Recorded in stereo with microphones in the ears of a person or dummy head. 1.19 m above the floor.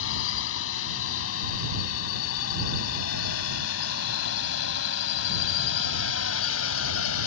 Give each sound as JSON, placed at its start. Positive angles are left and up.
{"t": 0.0, "sound": "a drone", "side_deg": 80}